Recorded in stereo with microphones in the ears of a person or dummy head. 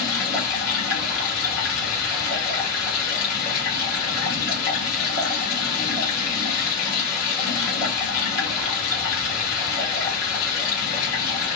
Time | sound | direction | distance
0.0 | running water | 50° left (ahead or behind) | 1.6 m